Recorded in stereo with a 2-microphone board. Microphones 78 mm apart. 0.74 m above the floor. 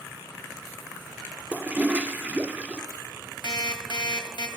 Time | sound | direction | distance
1.5 | a toilet flushing | 15° right (ahead or behind) | 0.6 m
3.4 | an alarm clock | 70° left (ahead or behind) | 1.6 m